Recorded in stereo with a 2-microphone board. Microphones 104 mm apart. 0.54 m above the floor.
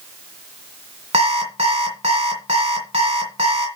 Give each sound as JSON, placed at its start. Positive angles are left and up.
{"t": 1.1, "sound": "an alarm clock", "side_deg": -75, "distance_m": 2.0}